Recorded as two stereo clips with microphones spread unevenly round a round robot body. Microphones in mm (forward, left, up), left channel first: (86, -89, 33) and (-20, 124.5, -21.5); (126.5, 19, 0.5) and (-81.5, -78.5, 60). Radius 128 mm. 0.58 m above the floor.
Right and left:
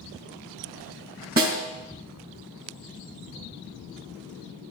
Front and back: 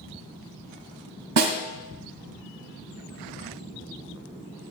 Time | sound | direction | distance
1.4 | a snare drum | 175° left | 2.0 m